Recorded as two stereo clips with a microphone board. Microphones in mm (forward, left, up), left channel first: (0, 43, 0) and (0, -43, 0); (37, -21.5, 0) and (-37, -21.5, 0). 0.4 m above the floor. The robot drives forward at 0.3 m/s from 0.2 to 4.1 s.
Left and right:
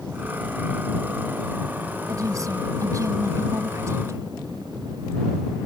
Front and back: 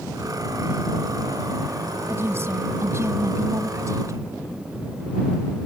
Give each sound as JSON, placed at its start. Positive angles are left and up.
{"t": 2.1, "sound": "a woman speaking", "azimuth_deg": -130}